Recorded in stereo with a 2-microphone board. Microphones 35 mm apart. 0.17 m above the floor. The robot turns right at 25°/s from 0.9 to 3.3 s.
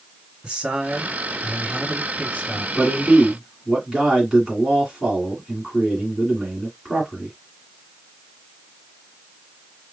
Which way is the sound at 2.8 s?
5° right (ahead or behind).